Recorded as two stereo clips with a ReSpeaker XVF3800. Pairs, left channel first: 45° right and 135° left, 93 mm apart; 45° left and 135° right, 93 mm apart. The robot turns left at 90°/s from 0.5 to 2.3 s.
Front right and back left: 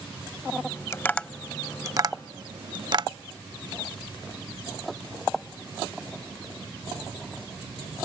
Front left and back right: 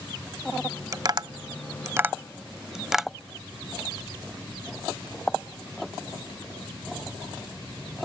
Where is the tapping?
95° right; by 3.1 s 140° left.